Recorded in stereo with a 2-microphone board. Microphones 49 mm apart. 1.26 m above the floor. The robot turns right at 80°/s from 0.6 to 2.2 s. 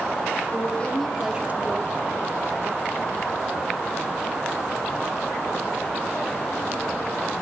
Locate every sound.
0.5 s a woman speaking: 140° left, 2.5 m; by 1.9 s 120° right, 2.5 m